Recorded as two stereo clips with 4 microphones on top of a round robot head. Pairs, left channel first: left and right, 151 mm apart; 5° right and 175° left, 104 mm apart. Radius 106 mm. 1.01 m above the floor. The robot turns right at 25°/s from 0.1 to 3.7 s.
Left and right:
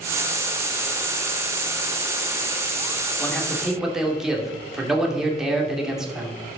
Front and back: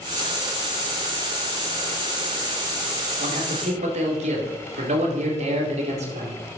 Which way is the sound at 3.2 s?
170° left.